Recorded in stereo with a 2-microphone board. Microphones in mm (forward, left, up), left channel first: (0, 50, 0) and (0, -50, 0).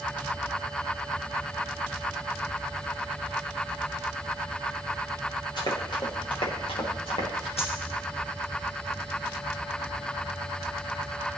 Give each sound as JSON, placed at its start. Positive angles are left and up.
{"t": 5.6, "sound": "running footsteps", "side_deg": 45, "distance_m": 4.0}
{"t": 7.6, "sound": "a dropped coin", "side_deg": 80, "distance_m": 2.5}